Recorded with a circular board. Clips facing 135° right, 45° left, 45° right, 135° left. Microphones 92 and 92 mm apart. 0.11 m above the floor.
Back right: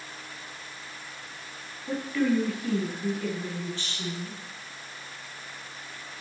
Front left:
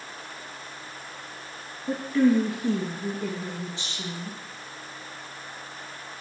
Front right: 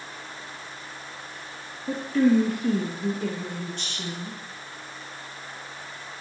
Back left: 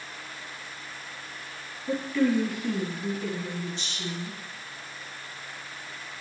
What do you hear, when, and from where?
1.9 s a woman speaking: 10° right, 1.9 m; by 4.4 s 25° right, 3.5 m